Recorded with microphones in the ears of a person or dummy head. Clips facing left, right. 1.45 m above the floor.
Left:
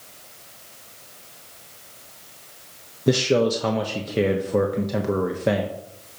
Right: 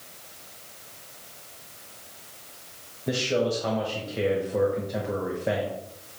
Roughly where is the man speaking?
Left.